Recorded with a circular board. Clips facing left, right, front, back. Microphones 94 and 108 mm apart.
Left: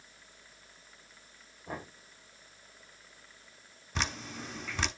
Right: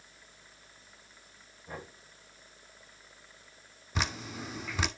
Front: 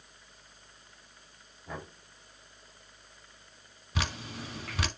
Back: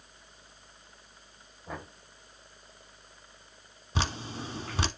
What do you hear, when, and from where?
1.7 s knocking: 115° left, 5.5 m
4.0 s dripping: 170° right, 0.7 m